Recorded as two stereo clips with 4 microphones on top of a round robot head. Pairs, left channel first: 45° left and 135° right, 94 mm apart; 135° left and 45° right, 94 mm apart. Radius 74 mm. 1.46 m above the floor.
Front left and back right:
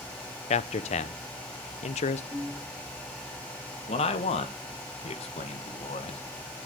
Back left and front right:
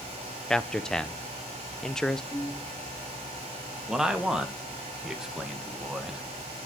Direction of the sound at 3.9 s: 40° left.